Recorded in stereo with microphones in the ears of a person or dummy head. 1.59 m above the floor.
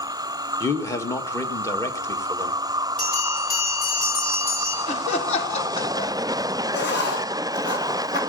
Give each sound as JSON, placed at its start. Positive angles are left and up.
{"t": 0.6, "sound": "a man speaking", "side_deg": 20, "distance_m": 1.7}
{"t": 3.0, "sound": "a bell", "side_deg": 45, "distance_m": 5.5}
{"t": 4.9, "sound": "laughter", "side_deg": 40, "distance_m": 1.2}
{"t": 6.7, "sound": "writing", "side_deg": 55, "distance_m": 2.0}